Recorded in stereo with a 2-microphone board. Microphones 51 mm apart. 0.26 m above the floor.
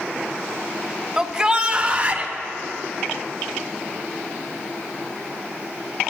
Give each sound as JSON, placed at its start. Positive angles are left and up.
{"t": 1.2, "sound": "a shout", "side_deg": -10, "distance_m": 1.0}